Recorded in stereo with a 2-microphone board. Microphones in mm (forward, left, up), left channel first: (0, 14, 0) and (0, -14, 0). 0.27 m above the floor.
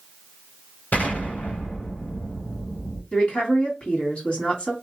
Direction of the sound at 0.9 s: 70° left (ahead or behind).